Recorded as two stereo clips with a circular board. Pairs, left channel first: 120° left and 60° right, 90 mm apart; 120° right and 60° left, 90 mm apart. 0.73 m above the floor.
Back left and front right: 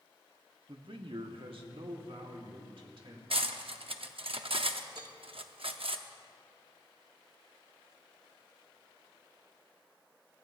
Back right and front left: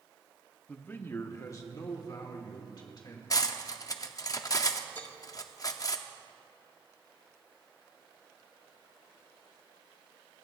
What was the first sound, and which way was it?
A man speaking, 50° right.